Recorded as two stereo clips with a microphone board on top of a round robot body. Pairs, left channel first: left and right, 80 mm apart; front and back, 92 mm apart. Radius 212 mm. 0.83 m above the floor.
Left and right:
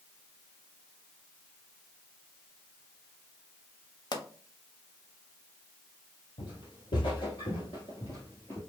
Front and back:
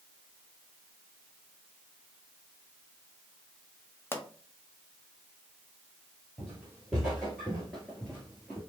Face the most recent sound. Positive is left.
turn(degrees=30)